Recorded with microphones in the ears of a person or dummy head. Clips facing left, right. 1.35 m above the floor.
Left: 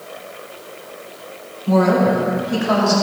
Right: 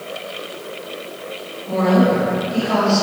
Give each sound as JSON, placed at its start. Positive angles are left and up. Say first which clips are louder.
{"t": 1.7, "sound": "a woman speaking", "louder": "left 1 dB", "side_deg": 85, "distance_m": 4.5}